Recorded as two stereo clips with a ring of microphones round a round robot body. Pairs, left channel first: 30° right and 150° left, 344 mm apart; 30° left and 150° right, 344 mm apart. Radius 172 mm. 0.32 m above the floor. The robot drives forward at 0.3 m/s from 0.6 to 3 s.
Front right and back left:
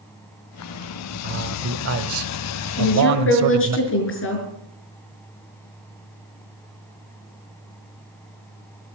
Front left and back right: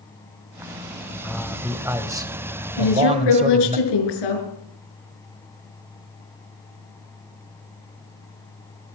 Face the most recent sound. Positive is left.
turn(degrees=25)